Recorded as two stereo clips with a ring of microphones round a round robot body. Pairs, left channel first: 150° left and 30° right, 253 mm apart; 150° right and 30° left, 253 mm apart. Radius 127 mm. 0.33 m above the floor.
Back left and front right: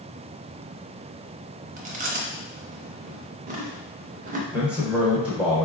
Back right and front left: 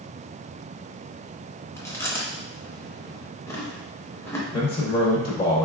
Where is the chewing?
75° right, 0.6 m.